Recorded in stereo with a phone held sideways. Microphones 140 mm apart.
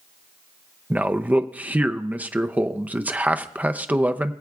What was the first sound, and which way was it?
A man speaking, 10° right (ahead or behind).